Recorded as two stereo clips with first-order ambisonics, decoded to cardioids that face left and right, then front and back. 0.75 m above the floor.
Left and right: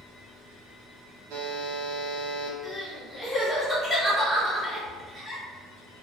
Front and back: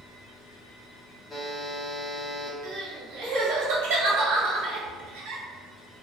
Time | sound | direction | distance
1.3 | a buzzer | 85° right | 0.8 m
2.6 | crying | 170° right | 1.5 m